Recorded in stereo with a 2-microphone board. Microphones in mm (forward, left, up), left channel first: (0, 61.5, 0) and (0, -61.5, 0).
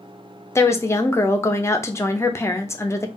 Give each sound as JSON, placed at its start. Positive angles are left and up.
{"t": 0.6, "sound": "a woman speaking", "side_deg": 20, "distance_m": 0.5}